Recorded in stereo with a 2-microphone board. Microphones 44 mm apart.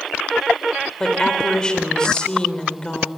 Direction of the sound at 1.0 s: 20° left (ahead or behind).